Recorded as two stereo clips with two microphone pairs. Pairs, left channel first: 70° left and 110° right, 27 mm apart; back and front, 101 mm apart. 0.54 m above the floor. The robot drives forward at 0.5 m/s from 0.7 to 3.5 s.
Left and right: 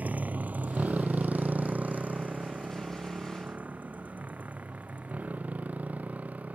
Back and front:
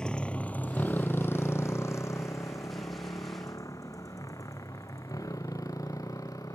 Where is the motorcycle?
95° right; by 6.6 s 120° right.